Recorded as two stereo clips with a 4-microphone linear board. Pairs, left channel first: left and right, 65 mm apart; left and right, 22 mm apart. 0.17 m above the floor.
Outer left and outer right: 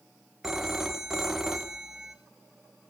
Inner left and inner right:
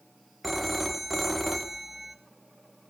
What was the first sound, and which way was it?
A phone ringing, 5° right (ahead or behind).